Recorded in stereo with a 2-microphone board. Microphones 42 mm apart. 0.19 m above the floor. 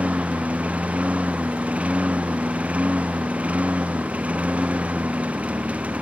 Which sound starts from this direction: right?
A lawn mower, at 0.0 s.